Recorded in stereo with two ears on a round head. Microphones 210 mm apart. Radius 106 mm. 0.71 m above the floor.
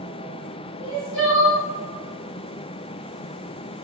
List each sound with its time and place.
0.8 s crying: 50° left (ahead or behind), 1.5 m